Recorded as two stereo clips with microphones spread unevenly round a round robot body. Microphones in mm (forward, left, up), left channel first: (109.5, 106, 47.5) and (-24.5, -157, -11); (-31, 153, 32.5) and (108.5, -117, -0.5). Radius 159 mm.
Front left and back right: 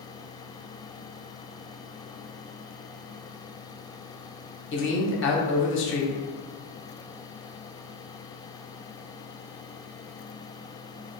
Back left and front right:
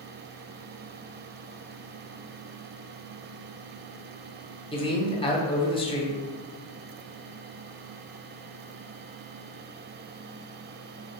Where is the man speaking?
50° left, 0.9 m.